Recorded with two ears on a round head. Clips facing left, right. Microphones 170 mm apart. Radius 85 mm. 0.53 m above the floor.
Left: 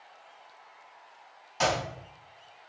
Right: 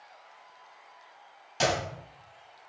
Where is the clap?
40° right (ahead or behind), 3.5 m.